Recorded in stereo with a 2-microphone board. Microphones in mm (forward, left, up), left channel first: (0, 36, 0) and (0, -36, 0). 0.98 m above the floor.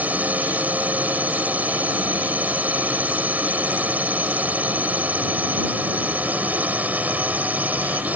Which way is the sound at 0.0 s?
25° right (ahead or behind).